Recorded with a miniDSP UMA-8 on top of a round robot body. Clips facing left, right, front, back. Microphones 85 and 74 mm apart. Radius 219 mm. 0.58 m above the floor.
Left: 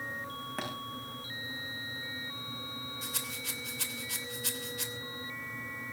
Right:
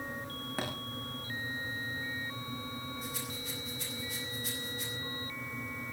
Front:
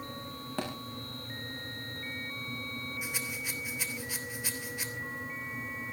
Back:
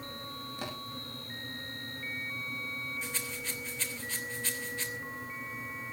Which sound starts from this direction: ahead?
A thud, at 0.6 s.